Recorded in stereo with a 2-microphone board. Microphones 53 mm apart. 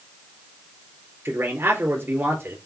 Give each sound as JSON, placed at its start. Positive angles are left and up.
{"t": 1.2, "sound": "a man speaking", "side_deg": -50, "distance_m": 3.5}